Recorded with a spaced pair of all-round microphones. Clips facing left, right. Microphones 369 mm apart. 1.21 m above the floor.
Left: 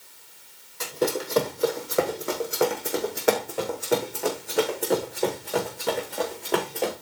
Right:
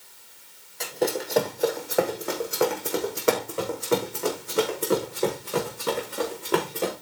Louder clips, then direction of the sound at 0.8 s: Even; 15° left (ahead or behind).